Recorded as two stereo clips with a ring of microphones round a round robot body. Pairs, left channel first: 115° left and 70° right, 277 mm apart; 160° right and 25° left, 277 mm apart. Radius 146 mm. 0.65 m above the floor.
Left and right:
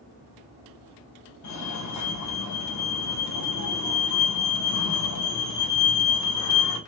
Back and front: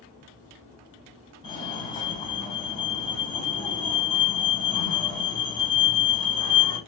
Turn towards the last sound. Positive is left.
turn(degrees=130)